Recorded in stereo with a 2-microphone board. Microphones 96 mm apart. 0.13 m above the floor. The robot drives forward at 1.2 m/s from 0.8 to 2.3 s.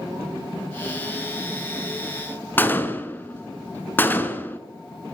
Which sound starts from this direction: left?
A gunshot, at 2.6 s.